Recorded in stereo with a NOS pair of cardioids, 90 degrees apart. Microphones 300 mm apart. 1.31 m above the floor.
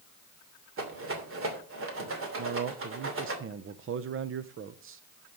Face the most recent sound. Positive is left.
turn(degrees=-45)